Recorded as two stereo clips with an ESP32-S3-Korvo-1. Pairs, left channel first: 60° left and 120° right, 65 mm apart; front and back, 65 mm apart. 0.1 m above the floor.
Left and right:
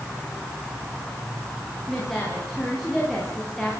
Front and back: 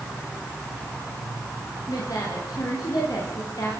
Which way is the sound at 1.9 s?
25° right.